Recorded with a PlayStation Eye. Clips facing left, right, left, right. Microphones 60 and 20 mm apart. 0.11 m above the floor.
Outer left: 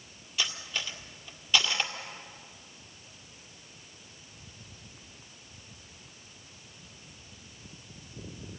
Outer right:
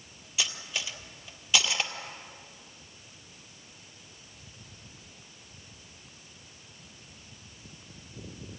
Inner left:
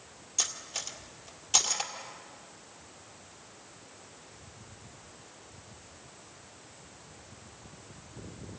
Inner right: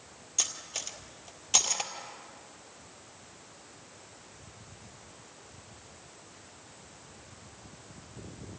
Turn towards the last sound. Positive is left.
turn(degrees=-5)  # may be behind; listen again after turning